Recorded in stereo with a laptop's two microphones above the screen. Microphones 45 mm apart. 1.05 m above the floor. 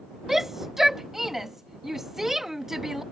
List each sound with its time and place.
0.3 s a shout: 5° right (ahead or behind)